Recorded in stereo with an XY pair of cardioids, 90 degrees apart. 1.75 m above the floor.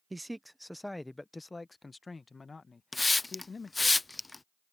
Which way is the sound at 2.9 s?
20° left.